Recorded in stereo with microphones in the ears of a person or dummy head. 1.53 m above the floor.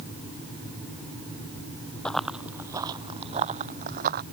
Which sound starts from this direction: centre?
Running footsteps, at 2.0 s.